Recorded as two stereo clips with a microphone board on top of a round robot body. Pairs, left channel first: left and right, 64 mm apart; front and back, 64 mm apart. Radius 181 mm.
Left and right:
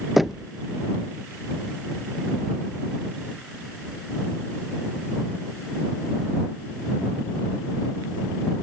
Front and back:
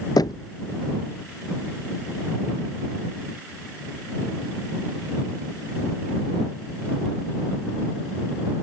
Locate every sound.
0.2 s knocking: straight ahead